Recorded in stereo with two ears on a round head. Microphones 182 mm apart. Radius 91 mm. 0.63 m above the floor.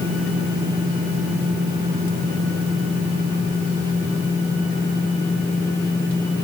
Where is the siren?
No siren in this recording.